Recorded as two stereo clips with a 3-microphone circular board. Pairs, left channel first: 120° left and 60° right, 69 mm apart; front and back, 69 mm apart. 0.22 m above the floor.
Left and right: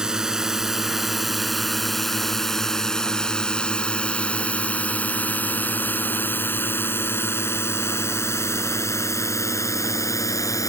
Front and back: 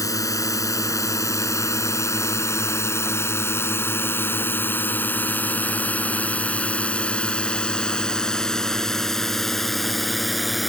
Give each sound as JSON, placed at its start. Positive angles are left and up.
{"t": 0.0, "sound": "a drone", "azimuth_deg": 20}